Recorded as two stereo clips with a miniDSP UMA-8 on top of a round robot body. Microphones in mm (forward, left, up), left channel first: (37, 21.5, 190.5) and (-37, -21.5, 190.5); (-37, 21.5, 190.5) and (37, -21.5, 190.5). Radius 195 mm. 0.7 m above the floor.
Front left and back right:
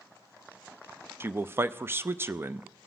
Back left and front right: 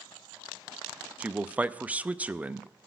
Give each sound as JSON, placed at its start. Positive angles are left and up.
{"t": 1.2, "sound": "a man speaking", "azimuth_deg": -100, "distance_m": 0.6}